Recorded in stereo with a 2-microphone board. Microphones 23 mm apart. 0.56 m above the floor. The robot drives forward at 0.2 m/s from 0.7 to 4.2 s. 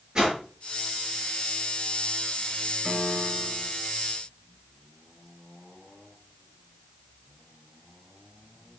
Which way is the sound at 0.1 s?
30° right (ahead or behind).